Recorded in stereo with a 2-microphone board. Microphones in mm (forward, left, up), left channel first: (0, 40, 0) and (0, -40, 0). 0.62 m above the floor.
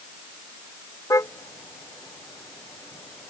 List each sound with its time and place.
1.1 s a car horn: 40° left (ahead or behind); by 3.3 s 35° left (ahead or behind)